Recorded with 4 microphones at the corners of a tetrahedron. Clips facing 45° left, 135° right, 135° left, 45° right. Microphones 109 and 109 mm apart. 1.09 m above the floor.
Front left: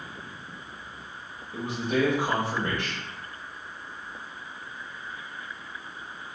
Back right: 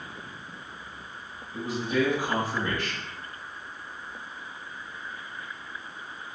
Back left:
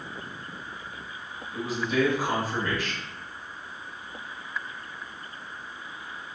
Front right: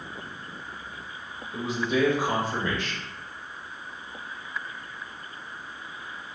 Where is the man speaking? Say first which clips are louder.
Even, even; 20° left, 1.3 m.